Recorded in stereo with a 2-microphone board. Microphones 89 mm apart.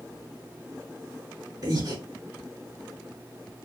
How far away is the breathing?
About 3 m.